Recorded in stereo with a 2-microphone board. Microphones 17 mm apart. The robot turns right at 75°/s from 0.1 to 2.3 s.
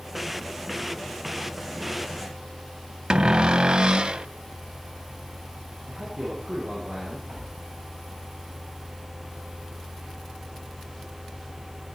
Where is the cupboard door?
45° right (ahead or behind), 0.6 m.